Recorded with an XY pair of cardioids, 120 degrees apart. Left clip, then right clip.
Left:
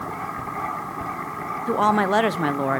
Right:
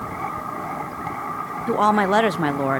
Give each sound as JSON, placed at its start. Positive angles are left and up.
{"t": 1.7, "sound": "a woman speaking", "azimuth_deg": -10, "distance_m": 0.8}